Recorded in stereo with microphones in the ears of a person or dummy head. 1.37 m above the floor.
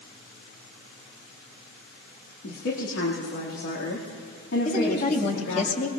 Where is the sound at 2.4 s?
75° left (ahead or behind), 2 m.